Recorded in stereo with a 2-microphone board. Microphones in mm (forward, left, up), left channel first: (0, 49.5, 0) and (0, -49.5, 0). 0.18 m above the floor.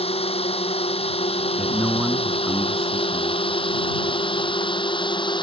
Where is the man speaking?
5° right (ahead or behind).